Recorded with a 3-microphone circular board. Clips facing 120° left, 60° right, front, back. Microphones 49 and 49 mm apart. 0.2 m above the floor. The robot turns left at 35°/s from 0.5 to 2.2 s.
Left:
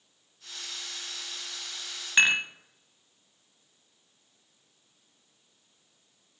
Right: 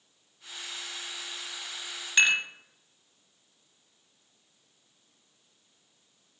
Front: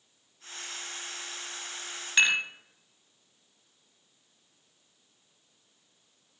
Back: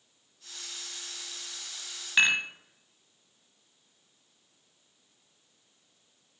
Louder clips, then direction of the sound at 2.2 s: Left 1 dB, even; 120° left.